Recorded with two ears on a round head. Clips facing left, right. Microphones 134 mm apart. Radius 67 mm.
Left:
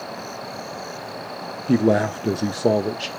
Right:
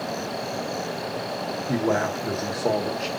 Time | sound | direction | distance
1.7 | a man speaking | 35° left (ahead or behind) | 0.7 m